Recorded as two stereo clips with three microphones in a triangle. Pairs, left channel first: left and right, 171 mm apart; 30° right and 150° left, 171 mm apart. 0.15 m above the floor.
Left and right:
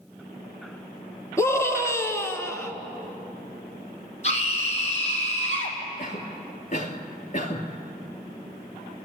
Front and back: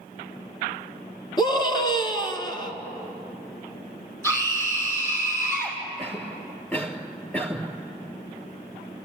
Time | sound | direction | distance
1.4 | a scream | 25° left | 2 m
4.2 | a scream | 45° left | 6 m
6.0 | a cough | 50° left | 2.5 m